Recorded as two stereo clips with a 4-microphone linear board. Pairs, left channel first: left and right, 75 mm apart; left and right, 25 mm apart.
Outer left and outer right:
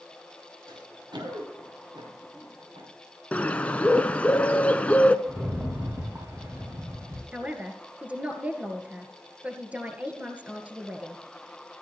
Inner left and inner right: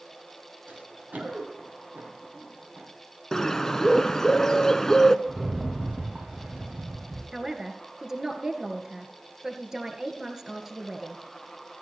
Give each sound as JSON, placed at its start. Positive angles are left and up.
{"t": 0.7, "sound": "running footsteps", "side_deg": -80, "distance_m": 4.0}
{"t": 3.3, "sound": "a bird", "side_deg": 20, "distance_m": 0.7}
{"t": 5.2, "sound": "a rattle", "side_deg": -30, "distance_m": 5.5}
{"t": 7.3, "sound": "a man speaking", "side_deg": -20, "distance_m": 2.0}